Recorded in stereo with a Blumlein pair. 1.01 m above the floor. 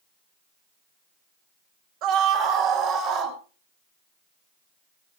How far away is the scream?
About 4.5 m.